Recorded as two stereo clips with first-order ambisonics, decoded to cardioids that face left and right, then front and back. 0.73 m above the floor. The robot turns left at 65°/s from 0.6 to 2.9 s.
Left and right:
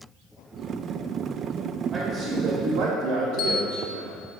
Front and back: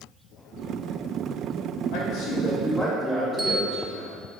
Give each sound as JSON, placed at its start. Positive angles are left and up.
{"t": 1.9, "sound": "a man speaking", "azimuth_deg": -15, "distance_m": 2.5}
{"t": 3.4, "sound": "a bell", "azimuth_deg": 100, "distance_m": 1.2}